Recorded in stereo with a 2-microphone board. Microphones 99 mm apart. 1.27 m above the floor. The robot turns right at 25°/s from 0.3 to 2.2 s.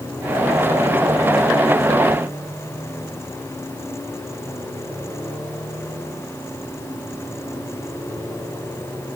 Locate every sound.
Only background noise.